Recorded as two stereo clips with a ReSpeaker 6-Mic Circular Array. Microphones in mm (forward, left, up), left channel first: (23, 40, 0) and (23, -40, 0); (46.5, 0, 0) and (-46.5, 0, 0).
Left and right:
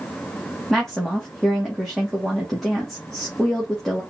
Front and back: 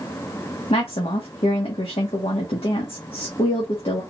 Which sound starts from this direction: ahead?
A woman speaking, at 0.7 s.